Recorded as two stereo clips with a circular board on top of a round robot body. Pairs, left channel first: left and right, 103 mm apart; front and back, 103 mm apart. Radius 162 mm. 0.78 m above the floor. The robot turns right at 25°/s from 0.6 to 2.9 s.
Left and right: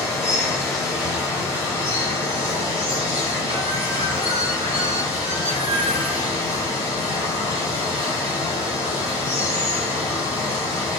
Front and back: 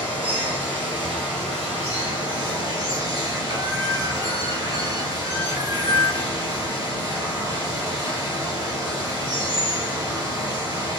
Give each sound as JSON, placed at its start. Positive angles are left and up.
{"t": 0.0, "sound": "running water", "azimuth_deg": 175, "distance_m": 1.2}